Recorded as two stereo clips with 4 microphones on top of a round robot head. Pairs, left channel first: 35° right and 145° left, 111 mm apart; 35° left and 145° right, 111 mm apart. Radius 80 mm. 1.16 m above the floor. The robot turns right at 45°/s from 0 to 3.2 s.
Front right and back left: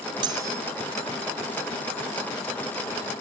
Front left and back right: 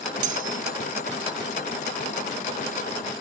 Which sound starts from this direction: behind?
Cutlery clinking, at 0.2 s.